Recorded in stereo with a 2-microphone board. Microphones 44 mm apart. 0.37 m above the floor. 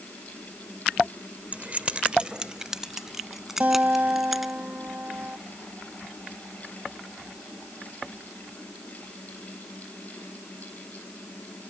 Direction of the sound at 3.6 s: 40° right (ahead or behind).